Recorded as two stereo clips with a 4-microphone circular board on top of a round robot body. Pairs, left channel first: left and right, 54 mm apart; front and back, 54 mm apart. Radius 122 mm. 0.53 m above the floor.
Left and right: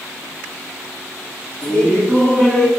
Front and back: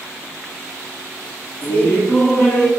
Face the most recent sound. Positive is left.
turn(degrees=20)